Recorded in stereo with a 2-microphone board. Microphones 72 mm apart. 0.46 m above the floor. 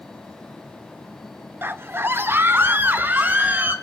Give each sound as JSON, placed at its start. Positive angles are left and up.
{"t": 1.6, "sound": "a scream", "side_deg": -30, "distance_m": 0.8}